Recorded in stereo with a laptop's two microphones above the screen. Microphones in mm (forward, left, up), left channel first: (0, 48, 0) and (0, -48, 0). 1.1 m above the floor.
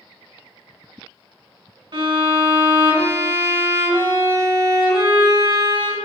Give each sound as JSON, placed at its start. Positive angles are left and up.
{"t": 1.9, "sound": "a violin", "side_deg": -60, "distance_m": 1.7}